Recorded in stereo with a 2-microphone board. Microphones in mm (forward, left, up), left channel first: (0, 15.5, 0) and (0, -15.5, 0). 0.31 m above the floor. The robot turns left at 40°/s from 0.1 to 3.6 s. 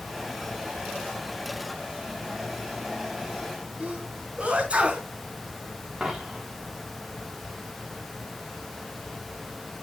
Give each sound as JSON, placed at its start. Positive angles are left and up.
{"t": 3.8, "sound": "a sneeze", "side_deg": -35, "distance_m": 3.5}
{"t": 6.0, "sound": "a dropped coin", "side_deg": -5, "distance_m": 5.5}